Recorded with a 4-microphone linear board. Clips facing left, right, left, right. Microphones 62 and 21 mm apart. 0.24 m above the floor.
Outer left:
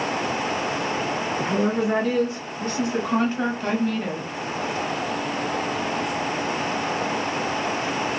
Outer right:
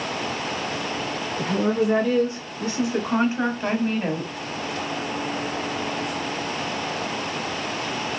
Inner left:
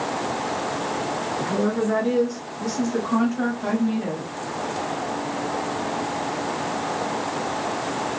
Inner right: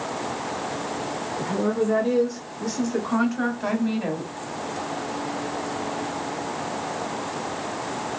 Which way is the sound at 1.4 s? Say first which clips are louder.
Outer right 2 dB, even; 10° left (ahead or behind).